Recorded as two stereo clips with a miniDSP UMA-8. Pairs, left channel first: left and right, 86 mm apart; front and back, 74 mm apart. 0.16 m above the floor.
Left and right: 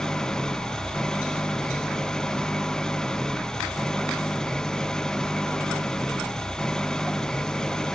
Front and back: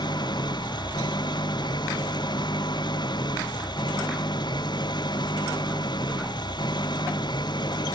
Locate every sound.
0.0 s an engine running: 10° left